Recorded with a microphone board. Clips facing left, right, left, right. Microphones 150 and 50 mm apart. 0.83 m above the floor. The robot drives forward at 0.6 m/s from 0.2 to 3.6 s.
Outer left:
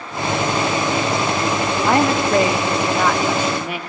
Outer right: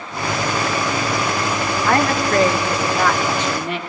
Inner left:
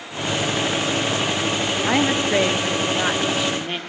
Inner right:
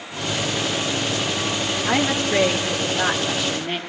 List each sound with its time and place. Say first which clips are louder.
1.9 s a woman speaking: outer left 2 dB, inner left 1 dB; 15° left (ahead or behind), 1.8 m; by 3.8 s 10° left (ahead or behind), 2.5 m